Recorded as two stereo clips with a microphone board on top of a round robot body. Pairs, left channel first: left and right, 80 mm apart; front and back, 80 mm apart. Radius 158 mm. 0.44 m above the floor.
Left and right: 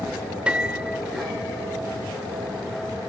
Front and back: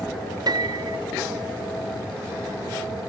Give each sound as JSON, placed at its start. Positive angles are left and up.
{"t": 0.5, "sound": "a piano", "azimuth_deg": -165}